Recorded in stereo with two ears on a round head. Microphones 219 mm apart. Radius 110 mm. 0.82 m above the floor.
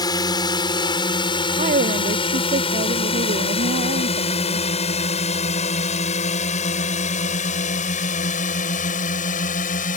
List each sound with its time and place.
0.0 s a drone: 15° left (ahead or behind); by 10.0 s 35° left (ahead or behind)
1.6 s a woman speaking: 30° right (ahead or behind)